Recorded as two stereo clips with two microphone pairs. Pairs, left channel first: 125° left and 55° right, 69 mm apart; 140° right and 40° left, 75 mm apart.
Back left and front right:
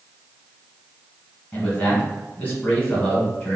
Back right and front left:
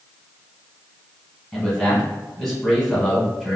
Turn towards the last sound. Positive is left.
turn(degrees=140)